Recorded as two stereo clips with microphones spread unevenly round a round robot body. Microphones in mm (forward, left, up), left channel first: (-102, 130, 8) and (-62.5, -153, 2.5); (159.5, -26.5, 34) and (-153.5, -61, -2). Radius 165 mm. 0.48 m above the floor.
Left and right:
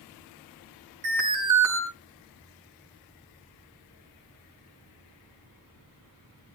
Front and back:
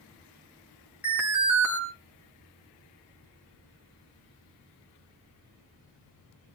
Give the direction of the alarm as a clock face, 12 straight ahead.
3 o'clock.